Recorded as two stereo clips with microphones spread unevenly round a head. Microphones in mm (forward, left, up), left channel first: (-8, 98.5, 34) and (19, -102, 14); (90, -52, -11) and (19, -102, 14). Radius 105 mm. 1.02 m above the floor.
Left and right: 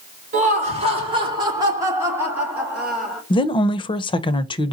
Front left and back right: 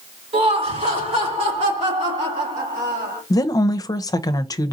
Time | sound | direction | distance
0.3 | laughter | 140° right | 2 m
3.3 | a woman speaking | 30° left | 0.6 m